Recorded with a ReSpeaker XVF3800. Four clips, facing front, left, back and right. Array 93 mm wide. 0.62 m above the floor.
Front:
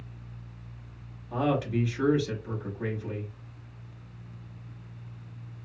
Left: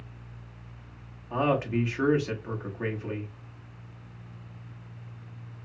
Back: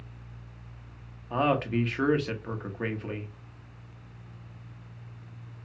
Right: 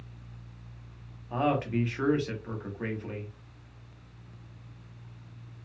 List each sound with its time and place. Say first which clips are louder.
1.3 s a man speaking: left 2 dB, back 1 dB; 170° left, 0.8 m